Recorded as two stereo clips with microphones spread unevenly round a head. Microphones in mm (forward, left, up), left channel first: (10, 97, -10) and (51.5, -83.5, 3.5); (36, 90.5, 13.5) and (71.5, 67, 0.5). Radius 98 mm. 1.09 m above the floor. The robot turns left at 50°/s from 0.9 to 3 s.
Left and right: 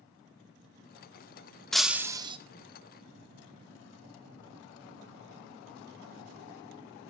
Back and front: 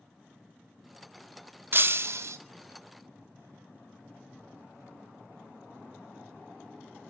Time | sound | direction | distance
1.7 | breaking glass | 15° left | 1.0 m